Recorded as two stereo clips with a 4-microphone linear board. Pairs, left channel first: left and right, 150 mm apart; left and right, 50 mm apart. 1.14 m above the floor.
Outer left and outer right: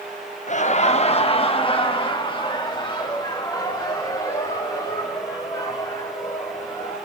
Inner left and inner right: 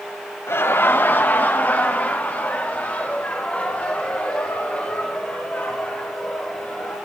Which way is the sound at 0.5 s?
50° left (ahead or behind).